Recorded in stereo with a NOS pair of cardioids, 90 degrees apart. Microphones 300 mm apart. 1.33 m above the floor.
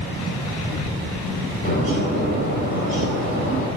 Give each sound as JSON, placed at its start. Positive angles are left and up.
{"t": 1.6, "sound": "a bird", "azimuth_deg": 25, "distance_m": 2.5}